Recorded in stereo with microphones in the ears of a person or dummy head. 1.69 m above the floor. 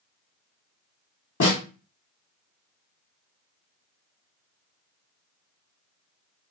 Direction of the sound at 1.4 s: 65° left (ahead or behind).